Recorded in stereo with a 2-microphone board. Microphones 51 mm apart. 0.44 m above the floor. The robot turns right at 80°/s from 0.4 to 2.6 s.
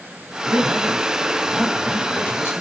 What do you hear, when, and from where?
0.5 s a man speaking: 105° right, 3 m; by 2.6 s 65° left, 3 m